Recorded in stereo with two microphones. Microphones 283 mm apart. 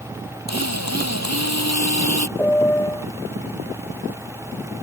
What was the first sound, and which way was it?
A drill, 80° left.